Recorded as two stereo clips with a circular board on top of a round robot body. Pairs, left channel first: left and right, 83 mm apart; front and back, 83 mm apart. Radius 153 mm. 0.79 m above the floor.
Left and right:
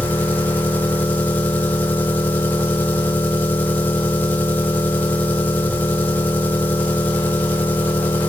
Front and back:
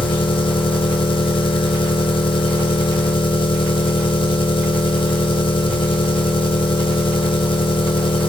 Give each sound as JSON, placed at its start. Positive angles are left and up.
{"t": 0.0, "sound": "an engine running", "azimuth_deg": 20, "distance_m": 1.7}